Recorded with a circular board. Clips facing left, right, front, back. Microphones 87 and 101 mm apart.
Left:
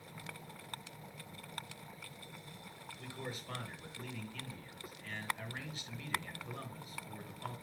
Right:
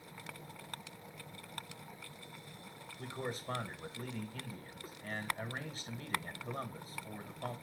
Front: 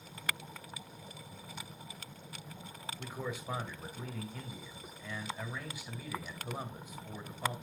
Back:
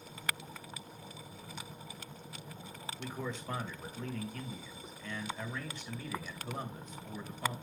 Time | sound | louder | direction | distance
3.0 | a man speaking | right 5 dB, even | 75° right | 1.4 m